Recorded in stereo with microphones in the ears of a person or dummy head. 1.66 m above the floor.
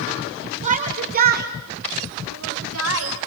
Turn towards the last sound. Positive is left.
turn(degrees=-80)